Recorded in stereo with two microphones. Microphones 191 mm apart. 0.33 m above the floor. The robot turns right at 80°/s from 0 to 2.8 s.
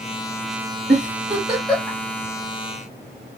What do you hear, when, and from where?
0.9 s a giggle: 60° right (ahead or behind), 1.1 m; by 2.0 s 25° left (ahead or behind), 1.1 m